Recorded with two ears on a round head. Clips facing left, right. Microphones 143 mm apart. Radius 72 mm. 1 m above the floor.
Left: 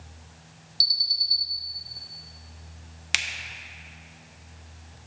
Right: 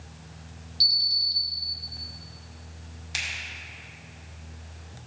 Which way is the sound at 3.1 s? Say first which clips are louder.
Left 5 dB; 80° left.